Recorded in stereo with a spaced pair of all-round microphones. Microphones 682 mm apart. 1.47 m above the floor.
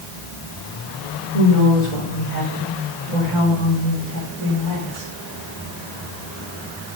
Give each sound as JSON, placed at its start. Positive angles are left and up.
{"t": 1.3, "sound": "a woman speaking", "side_deg": 60, "distance_m": 6.5}